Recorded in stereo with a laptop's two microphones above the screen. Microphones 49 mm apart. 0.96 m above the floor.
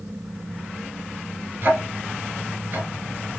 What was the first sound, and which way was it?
A fan, 55° right (ahead or behind).